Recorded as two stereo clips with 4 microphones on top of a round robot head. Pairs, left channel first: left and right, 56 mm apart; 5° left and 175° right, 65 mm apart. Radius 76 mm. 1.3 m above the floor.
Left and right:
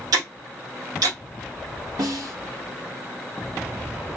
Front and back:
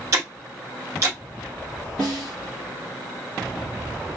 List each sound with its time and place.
0.1 s ticking: 115° right, 1.2 m
2.0 s a snare drum: 80° right, 1.9 m